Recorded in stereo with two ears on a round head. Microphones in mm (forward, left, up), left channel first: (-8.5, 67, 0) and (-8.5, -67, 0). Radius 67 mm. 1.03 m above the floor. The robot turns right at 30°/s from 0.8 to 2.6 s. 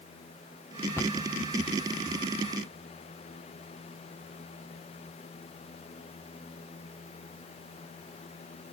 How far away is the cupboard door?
About 0.6 m.